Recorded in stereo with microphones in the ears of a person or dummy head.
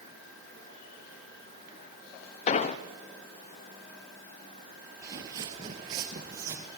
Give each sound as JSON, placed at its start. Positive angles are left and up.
{"t": 2.5, "sound": "an explosion", "side_deg": 40, "distance_m": 0.5}
{"t": 5.0, "sound": "footsteps", "side_deg": -25, "distance_m": 1.4}